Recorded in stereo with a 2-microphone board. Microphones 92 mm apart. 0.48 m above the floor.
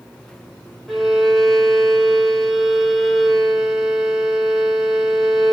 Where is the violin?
Centre (ahead or behind), 1.1 m.